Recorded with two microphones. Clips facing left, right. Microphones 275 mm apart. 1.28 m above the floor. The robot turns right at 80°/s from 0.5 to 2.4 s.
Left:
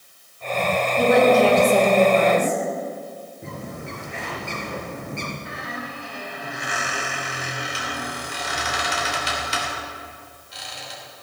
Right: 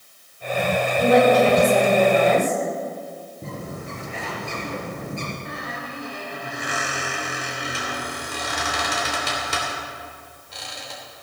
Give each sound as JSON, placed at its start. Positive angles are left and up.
{"t": 1.0, "sound": "a woman speaking", "azimuth_deg": 100, "distance_m": 4.0}
{"t": 3.4, "sound": "a bird", "side_deg": -40, "distance_m": 3.5}
{"t": 5.5, "sound": "a squeak", "side_deg": -55, "distance_m": 3.5}